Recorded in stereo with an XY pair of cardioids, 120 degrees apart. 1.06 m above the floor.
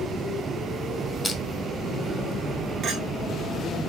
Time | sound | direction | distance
1.2 | crushing | 15° left | 3.5 m
2.8 | a clink | 55° right | 2.5 m